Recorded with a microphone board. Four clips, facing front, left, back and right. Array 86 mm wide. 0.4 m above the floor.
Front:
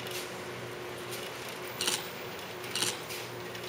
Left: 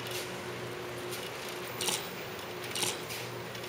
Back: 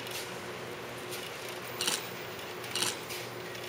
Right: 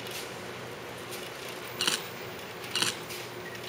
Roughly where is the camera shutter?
Right.